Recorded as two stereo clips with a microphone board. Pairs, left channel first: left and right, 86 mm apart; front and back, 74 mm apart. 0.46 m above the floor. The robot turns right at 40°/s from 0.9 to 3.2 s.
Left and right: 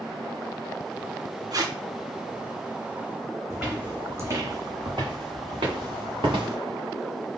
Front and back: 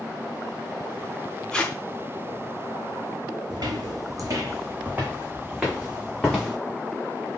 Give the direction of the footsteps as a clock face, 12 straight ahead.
6 o'clock.